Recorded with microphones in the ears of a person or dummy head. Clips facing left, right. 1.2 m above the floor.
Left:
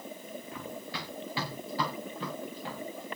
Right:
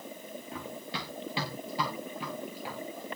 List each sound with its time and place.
0.5 s running footsteps: 25° right (ahead or behind), 6 m; by 3.1 s 5° right (ahead or behind), 5.5 m